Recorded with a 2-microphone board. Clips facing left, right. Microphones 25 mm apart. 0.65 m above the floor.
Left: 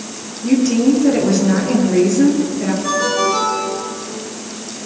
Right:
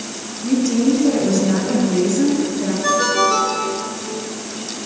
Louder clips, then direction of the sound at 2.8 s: Right 2 dB; 35° right (ahead or behind).